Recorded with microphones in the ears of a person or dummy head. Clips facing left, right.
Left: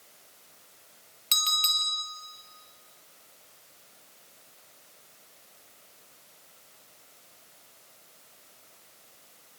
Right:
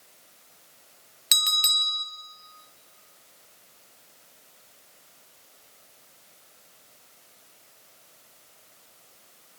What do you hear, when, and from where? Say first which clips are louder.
1.3 s a bell: left 1 dB; 15° right (ahead or behind), 1.2 m